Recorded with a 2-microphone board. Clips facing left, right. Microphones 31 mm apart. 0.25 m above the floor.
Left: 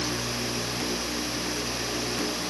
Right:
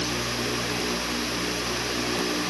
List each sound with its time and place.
Only background noise.